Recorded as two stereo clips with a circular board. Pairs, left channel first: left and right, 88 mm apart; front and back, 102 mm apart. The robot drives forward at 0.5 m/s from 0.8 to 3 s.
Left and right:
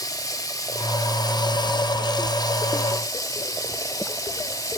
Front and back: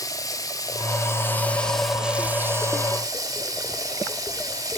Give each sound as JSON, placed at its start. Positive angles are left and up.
{"t": 0.0, "sound": "running water", "azimuth_deg": 50, "distance_m": 0.9}